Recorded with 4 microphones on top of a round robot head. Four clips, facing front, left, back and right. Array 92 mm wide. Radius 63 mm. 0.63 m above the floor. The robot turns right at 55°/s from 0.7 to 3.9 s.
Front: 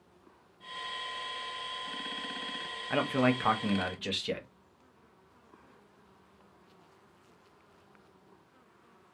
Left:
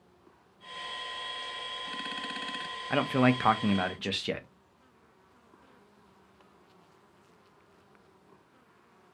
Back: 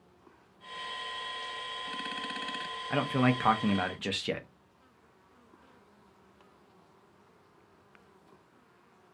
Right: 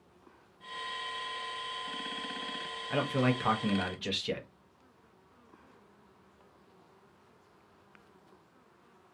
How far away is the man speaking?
About 0.6 m.